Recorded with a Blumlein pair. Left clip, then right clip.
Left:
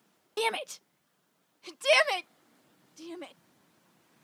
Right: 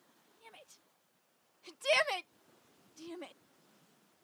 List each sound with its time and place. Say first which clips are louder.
0.4 s a shout: left 27 dB; 45° left; by 3.3 s 10° left